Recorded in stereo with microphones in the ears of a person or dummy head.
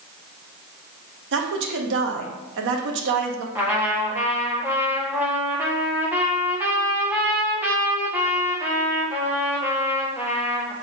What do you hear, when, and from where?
1.3 s a woman speaking: 65° right (ahead or behind), 1.0 m
3.5 s a trumpet: 10° right (ahead or behind), 1.5 m